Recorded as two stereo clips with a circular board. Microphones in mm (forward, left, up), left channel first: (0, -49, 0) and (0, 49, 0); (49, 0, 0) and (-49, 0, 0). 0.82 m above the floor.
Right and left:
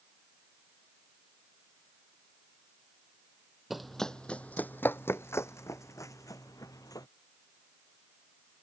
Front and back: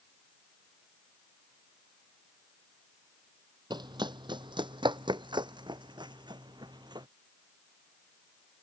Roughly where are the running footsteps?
Behind.